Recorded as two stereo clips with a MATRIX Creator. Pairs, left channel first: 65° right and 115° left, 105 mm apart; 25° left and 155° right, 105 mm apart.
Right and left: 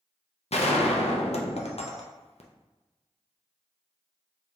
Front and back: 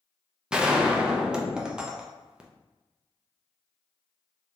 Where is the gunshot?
75° right, 0.6 m.